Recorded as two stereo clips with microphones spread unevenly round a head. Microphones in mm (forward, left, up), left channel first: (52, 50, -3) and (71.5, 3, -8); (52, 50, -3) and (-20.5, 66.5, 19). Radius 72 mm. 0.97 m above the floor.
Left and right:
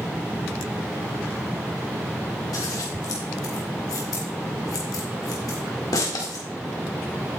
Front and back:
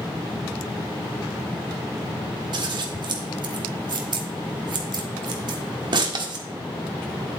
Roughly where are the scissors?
Behind left.